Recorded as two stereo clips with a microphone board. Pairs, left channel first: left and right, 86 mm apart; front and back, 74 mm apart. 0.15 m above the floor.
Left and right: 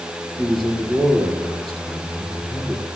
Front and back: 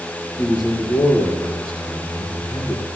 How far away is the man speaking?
About 2.5 m.